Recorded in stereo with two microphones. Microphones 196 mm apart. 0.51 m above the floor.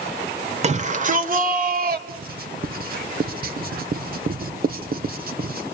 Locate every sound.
0.6 s a shout: 35° right (ahead or behind), 1.5 m; by 2.0 s 50° right (ahead or behind), 2.0 m
2.1 s writing: 50° right (ahead or behind), 1.7 m